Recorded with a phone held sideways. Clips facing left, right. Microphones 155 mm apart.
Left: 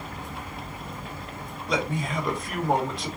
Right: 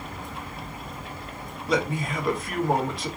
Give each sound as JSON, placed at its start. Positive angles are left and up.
{"t": 1.7, "sound": "a man speaking", "side_deg": 0, "distance_m": 1.9}